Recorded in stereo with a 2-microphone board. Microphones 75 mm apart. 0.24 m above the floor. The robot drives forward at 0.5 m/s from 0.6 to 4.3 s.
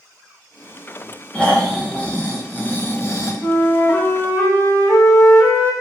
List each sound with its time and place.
1.3 s snoring: 15° left (ahead or behind), 1.2 m; by 3.3 s 40° left (ahead or behind), 0.5 m
3.4 s a flute: 25° left (ahead or behind), 0.8 m; by 5.7 s 40° left (ahead or behind), 0.6 m